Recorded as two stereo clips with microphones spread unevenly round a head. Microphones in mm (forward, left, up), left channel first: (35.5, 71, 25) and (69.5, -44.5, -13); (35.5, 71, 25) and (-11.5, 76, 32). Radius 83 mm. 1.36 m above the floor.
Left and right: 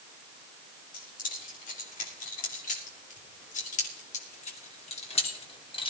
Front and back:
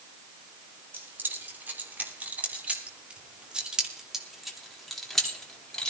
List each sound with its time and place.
0.9 s keys jangling: 135° left, 3.5 m; by 5.9 s 65° left, 2.5 m